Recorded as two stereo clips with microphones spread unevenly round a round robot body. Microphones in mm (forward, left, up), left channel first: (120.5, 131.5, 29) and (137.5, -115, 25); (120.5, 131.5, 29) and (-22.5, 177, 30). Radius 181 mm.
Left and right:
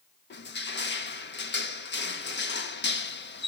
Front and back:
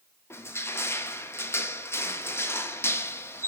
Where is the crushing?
55° left, 1.4 m.